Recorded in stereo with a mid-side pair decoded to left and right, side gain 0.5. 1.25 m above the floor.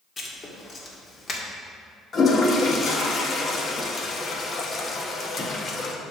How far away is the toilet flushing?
About 1.3 m.